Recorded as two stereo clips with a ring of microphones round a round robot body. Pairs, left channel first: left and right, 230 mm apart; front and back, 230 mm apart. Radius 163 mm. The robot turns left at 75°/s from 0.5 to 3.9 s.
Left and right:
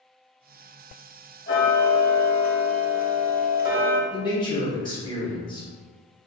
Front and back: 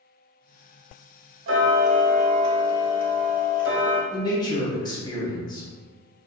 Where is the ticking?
150° left, 0.6 m; by 4.0 s 35° right, 0.6 m.